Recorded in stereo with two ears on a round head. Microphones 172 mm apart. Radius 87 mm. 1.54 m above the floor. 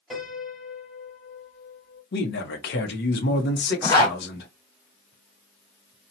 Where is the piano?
Centre (ahead or behind), 1.6 m.